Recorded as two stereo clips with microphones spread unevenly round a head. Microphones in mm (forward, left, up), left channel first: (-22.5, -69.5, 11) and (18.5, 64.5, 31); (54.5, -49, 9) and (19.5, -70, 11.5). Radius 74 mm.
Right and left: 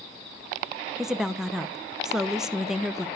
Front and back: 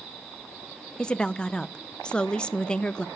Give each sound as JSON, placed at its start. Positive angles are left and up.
{"t": 1.0, "sound": "a woman speaking", "azimuth_deg": -20, "distance_m": 0.6}